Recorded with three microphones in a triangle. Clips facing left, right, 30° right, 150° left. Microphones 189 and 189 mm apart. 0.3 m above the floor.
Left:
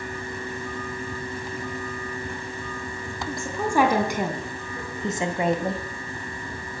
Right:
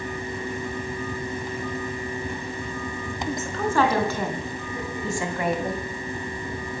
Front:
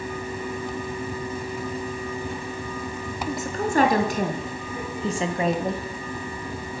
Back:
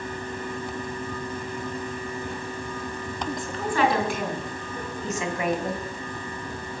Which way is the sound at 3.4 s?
15° left.